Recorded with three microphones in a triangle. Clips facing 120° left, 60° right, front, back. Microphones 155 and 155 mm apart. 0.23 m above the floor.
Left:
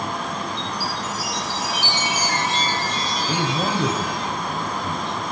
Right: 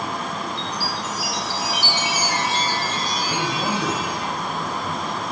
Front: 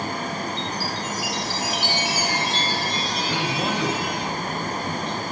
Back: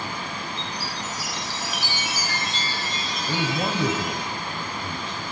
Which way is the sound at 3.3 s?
120° left.